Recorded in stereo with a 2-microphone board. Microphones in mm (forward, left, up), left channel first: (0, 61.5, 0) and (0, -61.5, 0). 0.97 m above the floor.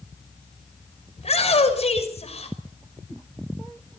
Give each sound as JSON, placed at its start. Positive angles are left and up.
{"t": 1.2, "sound": "a shout", "side_deg": 60, "distance_m": 5.5}